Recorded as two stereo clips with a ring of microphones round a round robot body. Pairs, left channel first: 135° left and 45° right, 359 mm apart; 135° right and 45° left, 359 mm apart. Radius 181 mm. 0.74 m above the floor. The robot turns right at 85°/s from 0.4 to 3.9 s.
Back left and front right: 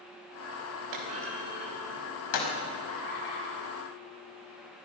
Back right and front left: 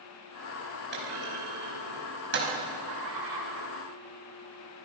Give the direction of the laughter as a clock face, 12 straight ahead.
9 o'clock.